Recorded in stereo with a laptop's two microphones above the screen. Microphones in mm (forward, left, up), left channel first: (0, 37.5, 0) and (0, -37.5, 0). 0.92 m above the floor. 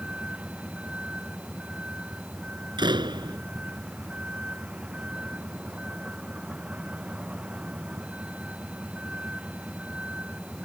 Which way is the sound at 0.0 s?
15° right (ahead or behind).